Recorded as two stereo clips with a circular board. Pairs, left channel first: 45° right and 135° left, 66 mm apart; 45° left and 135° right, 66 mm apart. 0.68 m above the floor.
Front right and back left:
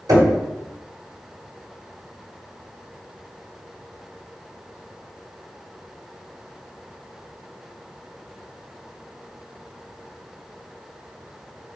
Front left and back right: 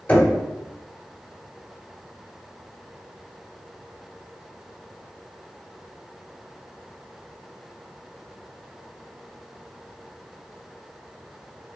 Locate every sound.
0.1 s knocking: 110° left, 1.5 m